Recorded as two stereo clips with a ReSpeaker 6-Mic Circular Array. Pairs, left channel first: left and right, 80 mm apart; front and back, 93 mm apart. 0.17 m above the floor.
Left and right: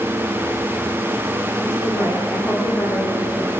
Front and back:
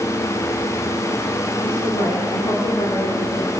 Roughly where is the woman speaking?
Ahead left.